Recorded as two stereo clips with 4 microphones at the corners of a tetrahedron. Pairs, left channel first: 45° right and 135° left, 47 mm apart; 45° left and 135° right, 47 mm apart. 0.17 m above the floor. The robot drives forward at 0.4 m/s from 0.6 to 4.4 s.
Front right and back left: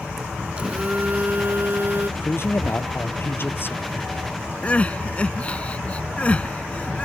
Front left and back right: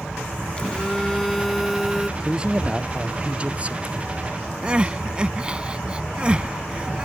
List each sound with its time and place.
0.6 s a phone buzzing: 95° left; by 2.1 s 140° left
2.2 s a man speaking: 65° right; by 3.9 s 80° right
4.6 s crying: 80° right